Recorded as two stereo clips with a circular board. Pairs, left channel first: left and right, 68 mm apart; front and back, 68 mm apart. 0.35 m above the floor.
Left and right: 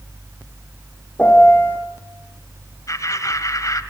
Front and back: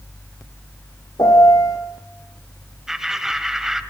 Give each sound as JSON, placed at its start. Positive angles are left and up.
{"t": 1.2, "sound": "a piano", "azimuth_deg": 20, "distance_m": 5.0}
{"t": 2.9, "sound": "laughter", "azimuth_deg": 100, "distance_m": 1.7}